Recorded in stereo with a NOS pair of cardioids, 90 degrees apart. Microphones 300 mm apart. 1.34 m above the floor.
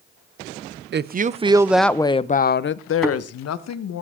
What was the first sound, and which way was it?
A woman speaking, 35° right.